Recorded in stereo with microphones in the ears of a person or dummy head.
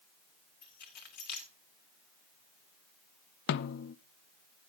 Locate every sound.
0.6 s keys jangling: 50° left (ahead or behind), 1.9 m
3.5 s a snare drum: 60° left (ahead or behind), 0.5 m